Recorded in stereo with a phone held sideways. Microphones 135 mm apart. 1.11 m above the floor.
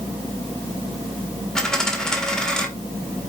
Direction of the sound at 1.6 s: 5° left (ahead or behind).